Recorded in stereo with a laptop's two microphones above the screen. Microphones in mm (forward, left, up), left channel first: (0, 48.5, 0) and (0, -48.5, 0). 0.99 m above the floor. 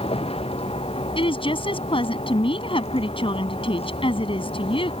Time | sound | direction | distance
0.0 | a vehicle | 75° left (ahead or behind) | ?
1.1 | a woman speaking | 65° left (ahead or behind) | ?